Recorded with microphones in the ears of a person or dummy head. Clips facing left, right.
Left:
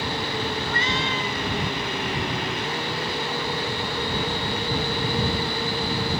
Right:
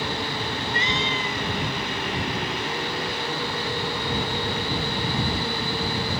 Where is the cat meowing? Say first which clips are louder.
Even; 20° right (ahead or behind).